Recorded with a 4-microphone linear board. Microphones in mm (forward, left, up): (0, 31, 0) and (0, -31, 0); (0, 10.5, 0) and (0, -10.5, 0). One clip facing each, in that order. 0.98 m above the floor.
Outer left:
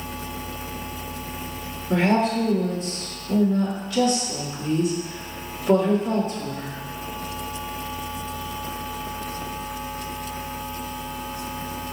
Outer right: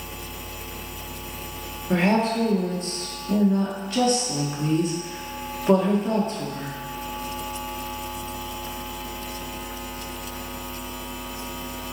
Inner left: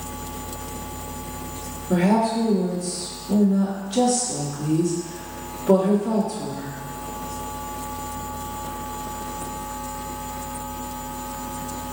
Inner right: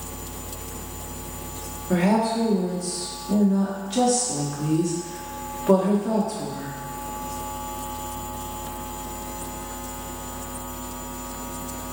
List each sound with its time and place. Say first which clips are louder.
1.9 s a woman speaking: outer left 1 dB, inner left 1 dB; 35° right (ahead or behind), 1.1 m